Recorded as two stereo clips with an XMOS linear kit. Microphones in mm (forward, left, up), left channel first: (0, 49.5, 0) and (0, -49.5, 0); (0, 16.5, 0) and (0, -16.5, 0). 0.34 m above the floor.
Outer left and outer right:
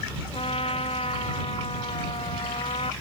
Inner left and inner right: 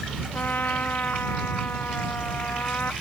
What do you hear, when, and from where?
0.3 s a trumpet: 75° left (ahead or behind)